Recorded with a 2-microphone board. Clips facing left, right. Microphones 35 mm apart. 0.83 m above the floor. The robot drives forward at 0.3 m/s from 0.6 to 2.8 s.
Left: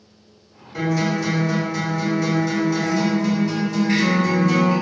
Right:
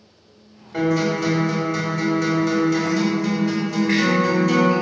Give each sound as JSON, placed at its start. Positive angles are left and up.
{"t": 0.7, "sound": "a guitar", "side_deg": -55, "distance_m": 1.8}